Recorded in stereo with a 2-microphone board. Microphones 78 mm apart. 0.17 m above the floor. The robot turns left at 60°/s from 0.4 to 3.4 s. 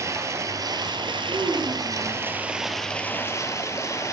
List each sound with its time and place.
0.0 s running water: 40° right, 0.9 m; by 4.1 s 140° left, 0.9 m
1.3 s a child speaking: 70° right, 3 m; by 2.3 s 135° right, 3 m